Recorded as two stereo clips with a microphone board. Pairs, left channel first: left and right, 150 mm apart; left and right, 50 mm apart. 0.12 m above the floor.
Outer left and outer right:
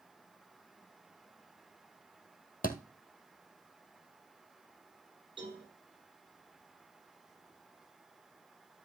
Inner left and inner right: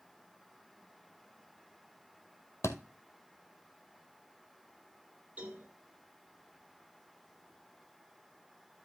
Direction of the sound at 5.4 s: 35° right (ahead or behind).